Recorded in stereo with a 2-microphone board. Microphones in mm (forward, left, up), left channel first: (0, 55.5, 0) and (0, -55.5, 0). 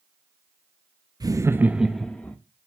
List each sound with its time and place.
1.2 s laughter: 35° right (ahead or behind), 0.7 m; by 2.4 s 15° left (ahead or behind), 0.8 m